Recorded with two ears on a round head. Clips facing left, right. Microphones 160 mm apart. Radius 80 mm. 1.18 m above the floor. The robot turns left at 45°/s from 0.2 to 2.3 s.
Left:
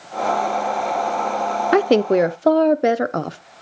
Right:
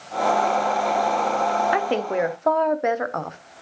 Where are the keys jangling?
No keys jangling in this recording.